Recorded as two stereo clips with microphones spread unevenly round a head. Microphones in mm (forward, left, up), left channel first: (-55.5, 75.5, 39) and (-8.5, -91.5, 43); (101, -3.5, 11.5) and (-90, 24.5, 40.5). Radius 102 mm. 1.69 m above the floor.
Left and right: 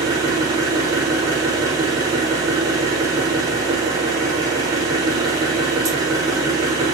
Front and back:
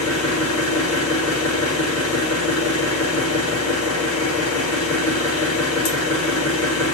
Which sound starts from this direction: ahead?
An engine running, at 0.0 s.